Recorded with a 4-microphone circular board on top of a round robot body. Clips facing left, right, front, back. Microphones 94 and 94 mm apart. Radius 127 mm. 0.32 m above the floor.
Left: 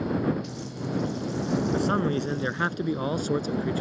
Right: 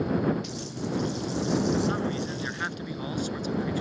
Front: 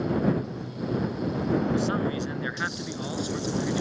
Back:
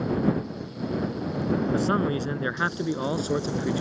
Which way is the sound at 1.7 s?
135° left.